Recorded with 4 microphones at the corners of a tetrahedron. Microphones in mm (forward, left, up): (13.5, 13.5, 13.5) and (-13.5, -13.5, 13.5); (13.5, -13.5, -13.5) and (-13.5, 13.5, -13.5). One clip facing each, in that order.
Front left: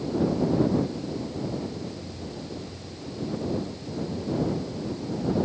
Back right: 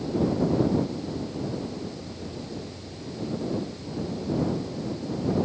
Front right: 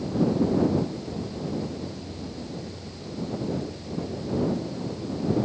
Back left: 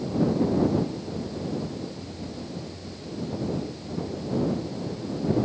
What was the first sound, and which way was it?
Only background noise.